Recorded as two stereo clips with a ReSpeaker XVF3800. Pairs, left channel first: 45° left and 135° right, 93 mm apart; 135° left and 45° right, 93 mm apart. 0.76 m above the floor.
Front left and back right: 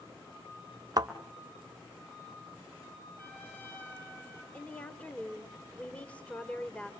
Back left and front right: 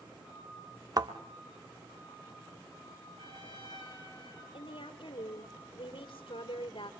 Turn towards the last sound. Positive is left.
turn(degrees=120)